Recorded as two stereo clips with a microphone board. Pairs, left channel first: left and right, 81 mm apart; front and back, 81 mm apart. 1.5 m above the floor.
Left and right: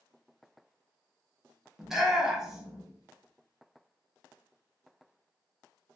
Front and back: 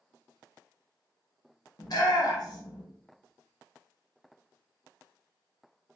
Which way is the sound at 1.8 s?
5° right.